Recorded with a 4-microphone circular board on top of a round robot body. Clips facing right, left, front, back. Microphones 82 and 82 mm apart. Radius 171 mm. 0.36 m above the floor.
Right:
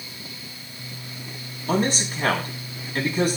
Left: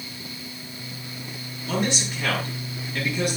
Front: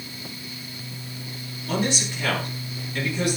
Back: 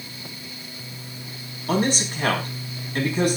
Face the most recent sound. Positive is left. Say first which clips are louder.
# right 3 dB, back 3 dB
turn(degrees=-135)